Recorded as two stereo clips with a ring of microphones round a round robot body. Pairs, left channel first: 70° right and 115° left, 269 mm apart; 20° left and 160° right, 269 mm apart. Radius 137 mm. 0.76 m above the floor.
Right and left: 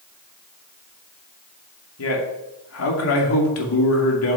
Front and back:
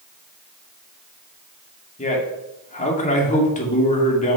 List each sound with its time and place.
2.0 s a man speaking: 40° right, 2.5 m